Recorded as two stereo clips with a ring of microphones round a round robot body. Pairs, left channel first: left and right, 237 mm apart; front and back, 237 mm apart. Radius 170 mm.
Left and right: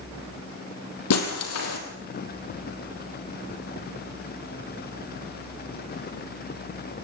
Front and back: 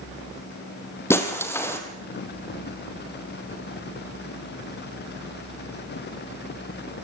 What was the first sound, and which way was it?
Breaking glass, 80° left.